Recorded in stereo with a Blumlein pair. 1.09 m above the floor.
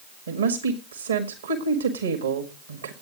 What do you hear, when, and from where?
0.3 s a woman speaking: 65° right, 1.7 m